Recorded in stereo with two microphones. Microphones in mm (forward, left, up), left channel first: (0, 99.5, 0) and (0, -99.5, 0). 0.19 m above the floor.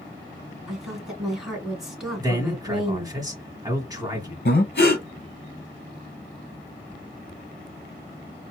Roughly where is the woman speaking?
Centre.